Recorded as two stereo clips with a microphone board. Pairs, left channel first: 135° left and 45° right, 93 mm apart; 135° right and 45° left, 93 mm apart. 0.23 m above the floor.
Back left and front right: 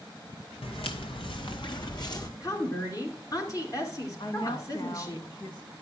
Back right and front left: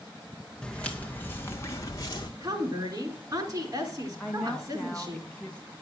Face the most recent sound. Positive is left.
turn(degrees=150)